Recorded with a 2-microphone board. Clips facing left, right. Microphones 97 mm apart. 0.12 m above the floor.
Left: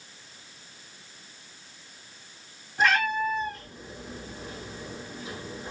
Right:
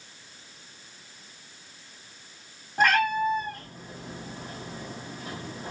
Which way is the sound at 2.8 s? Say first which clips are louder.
Right 2 dB; 55° right (ahead or behind).